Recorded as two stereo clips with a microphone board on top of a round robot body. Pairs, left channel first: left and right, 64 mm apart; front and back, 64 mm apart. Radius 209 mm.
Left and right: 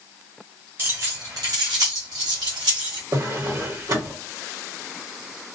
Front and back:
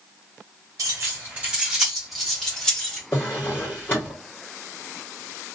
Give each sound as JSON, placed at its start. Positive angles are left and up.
{"t": 0.8, "sound": "keys jangling", "azimuth_deg": -145, "distance_m": 0.6}
{"t": 3.1, "sound": "a drawer", "azimuth_deg": -60, "distance_m": 1.3}